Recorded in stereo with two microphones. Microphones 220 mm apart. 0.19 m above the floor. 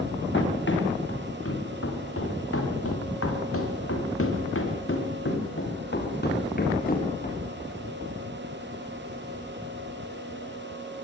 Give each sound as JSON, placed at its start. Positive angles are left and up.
{"t": 0.3, "sound": "running footsteps", "side_deg": 60, "distance_m": 6.5}